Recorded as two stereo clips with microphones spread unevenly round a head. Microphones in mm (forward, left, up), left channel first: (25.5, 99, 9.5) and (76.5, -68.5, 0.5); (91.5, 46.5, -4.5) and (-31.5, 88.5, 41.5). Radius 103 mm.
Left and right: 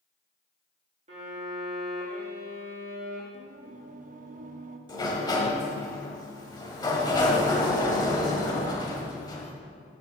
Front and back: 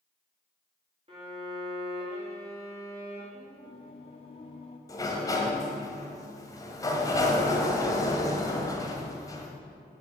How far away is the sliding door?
About 1.3 m.